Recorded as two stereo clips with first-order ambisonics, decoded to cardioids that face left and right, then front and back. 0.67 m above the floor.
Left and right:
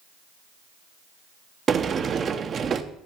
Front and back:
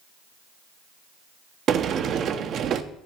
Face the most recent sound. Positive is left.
turn(degrees=-145)